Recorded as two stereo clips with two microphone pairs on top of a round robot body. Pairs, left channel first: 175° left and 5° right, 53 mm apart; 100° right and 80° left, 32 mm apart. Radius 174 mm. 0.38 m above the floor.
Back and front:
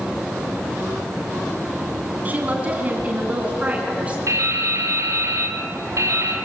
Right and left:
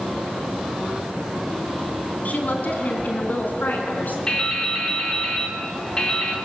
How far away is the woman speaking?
About 4 m.